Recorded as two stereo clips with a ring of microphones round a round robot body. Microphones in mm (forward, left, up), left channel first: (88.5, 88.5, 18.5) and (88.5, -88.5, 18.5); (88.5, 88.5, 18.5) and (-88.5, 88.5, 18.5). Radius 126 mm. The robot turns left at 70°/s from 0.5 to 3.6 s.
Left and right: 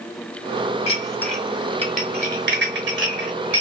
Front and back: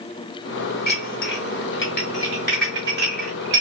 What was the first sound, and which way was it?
Dishes clattering, 35° left.